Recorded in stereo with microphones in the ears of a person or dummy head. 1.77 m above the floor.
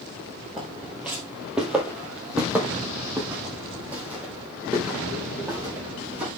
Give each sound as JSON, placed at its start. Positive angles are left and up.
{"t": 0.6, "sound": "footsteps", "side_deg": -5, "distance_m": 1.8}